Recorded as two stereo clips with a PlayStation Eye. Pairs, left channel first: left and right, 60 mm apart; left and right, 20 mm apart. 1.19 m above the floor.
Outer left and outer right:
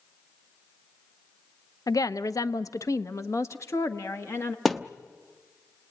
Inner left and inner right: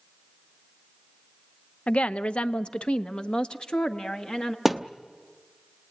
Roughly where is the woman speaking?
Left.